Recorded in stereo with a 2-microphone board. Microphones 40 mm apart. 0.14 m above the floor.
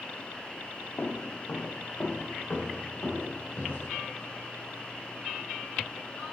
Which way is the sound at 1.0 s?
80° left.